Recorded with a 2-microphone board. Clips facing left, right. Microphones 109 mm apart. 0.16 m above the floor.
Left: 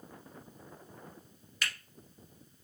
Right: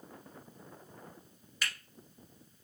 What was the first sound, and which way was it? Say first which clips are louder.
A finger snap: left 1 dB; 5° right (ahead or behind).